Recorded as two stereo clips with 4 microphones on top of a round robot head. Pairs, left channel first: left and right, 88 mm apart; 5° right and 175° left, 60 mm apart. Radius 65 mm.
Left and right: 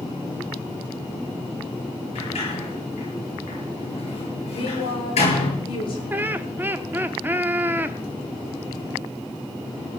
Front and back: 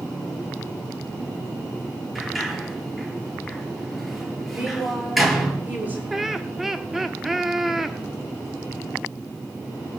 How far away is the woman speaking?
About 10 m.